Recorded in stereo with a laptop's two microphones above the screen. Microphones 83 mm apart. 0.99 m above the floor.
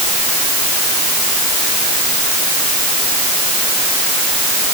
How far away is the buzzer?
I don't hear a buzzer.